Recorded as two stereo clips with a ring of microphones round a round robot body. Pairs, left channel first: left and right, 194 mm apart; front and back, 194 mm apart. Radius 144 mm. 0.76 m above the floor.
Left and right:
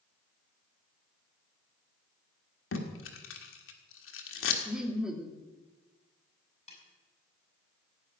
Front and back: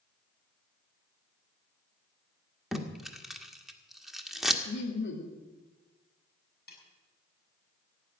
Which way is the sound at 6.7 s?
35° left.